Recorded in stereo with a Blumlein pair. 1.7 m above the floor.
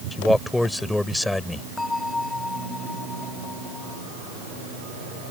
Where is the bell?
10° left.